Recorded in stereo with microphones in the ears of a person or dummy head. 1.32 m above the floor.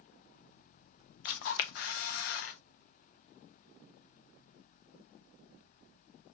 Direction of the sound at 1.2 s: 50° left (ahead or behind).